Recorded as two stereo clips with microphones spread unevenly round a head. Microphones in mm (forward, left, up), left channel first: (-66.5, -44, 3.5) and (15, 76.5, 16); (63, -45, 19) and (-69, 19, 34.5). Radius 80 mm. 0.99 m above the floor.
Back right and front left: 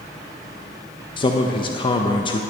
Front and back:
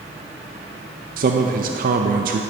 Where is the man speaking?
Straight behind, 0.5 m.